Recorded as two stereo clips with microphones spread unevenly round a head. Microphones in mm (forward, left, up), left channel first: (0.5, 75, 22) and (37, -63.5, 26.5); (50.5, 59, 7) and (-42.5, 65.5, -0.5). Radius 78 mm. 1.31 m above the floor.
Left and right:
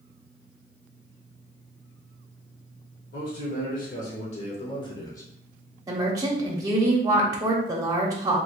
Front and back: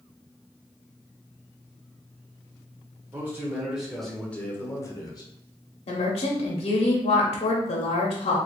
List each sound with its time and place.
3.1 s a man speaking: 115° left, 1.2 m; by 5.3 s 35° left, 1.1 m
5.9 s a woman speaking: 10° right, 0.8 m